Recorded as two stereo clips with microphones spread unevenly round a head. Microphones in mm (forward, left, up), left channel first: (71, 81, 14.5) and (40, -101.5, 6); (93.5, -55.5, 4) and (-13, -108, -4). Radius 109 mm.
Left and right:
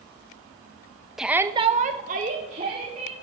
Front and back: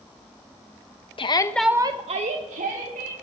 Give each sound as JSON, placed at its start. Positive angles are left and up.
{"t": 1.2, "sound": "a shout", "azimuth_deg": -15, "distance_m": 1.0}